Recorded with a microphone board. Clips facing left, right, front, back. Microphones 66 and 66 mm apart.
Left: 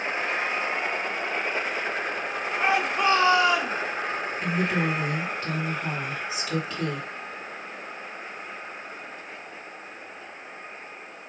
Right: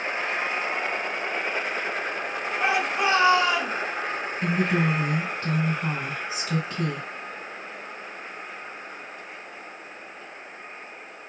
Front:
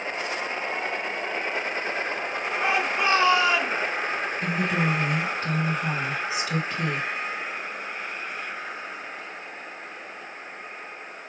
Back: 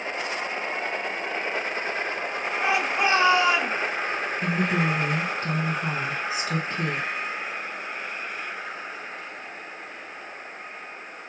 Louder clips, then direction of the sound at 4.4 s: Right 2 dB, back 1 dB; 135° right.